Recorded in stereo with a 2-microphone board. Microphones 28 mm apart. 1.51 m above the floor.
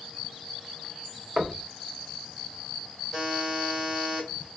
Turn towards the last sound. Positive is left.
turn(degrees=-30)  # may be behind; listen again after turning